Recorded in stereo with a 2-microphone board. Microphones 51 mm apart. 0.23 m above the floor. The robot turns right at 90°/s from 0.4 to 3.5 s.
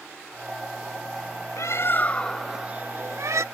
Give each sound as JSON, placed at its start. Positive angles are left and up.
{"t": 1.6, "sound": "a bird", "azimuth_deg": 100, "distance_m": 0.5}